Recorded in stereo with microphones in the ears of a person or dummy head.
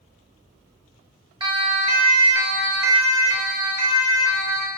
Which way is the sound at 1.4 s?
25° right (ahead or behind).